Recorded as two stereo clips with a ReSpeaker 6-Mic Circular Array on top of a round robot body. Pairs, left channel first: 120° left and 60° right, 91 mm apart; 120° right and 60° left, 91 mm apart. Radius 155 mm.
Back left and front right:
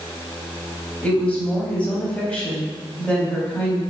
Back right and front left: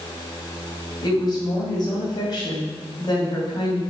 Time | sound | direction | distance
1.0 | a woman speaking | 165° right | 3 m